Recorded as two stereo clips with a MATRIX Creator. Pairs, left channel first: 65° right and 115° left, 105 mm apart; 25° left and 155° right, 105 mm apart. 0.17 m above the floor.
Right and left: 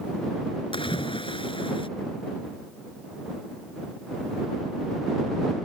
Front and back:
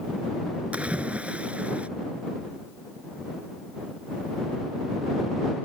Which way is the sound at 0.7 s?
80° right.